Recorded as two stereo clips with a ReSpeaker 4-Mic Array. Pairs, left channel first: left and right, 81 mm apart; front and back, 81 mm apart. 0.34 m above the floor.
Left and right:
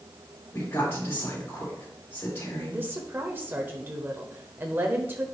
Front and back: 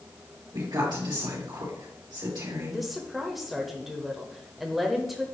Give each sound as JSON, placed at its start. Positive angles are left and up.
{"t": 0.5, "sound": "a woman speaking", "azimuth_deg": 145, "distance_m": 3.5}
{"t": 2.7, "sound": "a woman speaking", "azimuth_deg": -95, "distance_m": 0.8}